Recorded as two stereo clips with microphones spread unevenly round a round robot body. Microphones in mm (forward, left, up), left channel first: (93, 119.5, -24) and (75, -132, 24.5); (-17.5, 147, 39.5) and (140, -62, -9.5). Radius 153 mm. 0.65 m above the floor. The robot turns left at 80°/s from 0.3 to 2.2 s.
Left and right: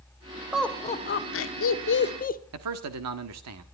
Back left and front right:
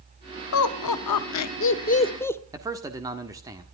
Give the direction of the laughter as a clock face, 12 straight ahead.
6 o'clock.